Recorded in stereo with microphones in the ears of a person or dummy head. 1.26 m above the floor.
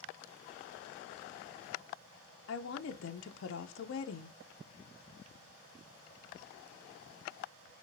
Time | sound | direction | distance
2.5 | a woman speaking | 65° left (ahead or behind) | 0.7 m